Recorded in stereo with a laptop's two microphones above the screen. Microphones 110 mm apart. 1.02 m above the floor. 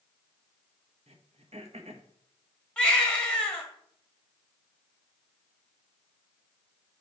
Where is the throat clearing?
75° right (ahead or behind), 0.8 m.